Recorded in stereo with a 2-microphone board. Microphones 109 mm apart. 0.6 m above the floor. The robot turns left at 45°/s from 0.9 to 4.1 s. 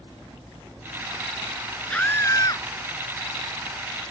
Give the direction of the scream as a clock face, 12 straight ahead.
6 o'clock.